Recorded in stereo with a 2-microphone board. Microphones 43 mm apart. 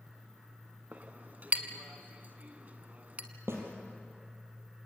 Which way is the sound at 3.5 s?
75° right (ahead or behind).